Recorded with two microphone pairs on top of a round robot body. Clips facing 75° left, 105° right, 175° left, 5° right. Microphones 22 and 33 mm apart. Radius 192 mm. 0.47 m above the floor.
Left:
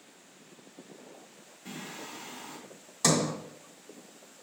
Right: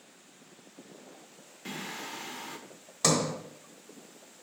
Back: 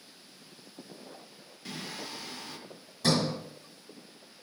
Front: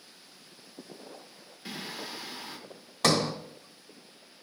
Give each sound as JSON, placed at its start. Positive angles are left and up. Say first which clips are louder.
{"t": 1.6, "sound": "singing", "louder": "right 3 dB, front 1 dB", "azimuth_deg": -80, "distance_m": 1.2}
{"t": 3.0, "sound": "a sliding door", "louder": "even, front 2 dB", "azimuth_deg": -25, "distance_m": 1.1}